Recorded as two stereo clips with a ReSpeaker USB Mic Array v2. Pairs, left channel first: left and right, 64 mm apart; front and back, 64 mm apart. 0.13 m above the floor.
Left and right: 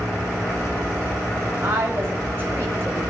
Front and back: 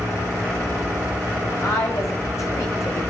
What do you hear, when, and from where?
1.6 s a woman speaking: 35° right, 8.5 m